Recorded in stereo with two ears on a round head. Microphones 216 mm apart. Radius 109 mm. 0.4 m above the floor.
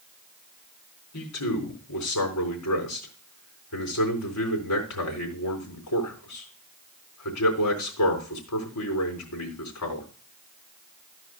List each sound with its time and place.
1.1 s a man speaking: 75° left (ahead or behind), 4 m